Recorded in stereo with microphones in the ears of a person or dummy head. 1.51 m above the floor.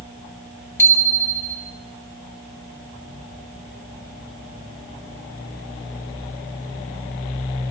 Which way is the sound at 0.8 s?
15° left (ahead or behind).